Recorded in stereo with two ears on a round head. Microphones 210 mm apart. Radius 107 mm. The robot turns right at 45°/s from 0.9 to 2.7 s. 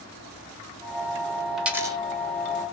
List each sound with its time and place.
1.6 s a dropped coin: centre (ahead or behind), 0.8 m; by 2.0 s 20° right (ahead or behind), 0.8 m